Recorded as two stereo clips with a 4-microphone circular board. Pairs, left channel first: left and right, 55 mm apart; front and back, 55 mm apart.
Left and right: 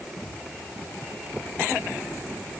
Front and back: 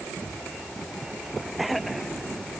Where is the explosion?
I don't hear an explosion.